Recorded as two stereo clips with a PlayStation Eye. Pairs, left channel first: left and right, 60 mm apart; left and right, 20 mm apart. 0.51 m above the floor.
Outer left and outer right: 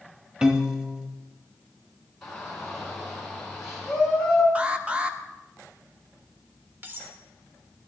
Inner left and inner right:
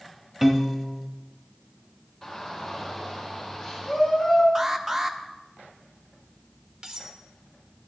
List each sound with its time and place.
0.4 s a piano: 15° right (ahead or behind), 0.8 m
2.2 s a shout: 10° left (ahead or behind), 4.5 m
4.5 s an alarm: 20° right (ahead or behind), 0.7 m
6.8 s cutlery clinking: 35° right (ahead or behind), 0.9 m